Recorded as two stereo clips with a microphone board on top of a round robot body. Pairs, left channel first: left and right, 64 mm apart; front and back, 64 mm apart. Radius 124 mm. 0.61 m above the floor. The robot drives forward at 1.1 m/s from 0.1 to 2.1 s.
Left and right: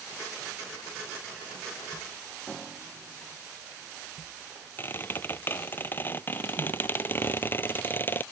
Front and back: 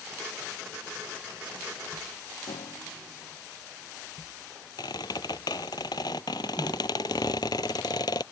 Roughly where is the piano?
Ahead.